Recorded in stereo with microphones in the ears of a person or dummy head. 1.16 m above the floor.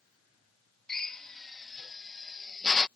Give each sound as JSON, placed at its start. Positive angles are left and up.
{"t": 0.9, "sound": "a drill", "side_deg": 5}